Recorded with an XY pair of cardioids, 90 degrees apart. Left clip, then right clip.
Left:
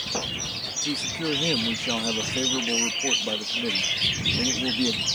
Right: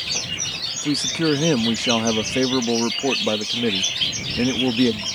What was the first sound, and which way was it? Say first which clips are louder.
A man speaking: right 5 dB; 65° right.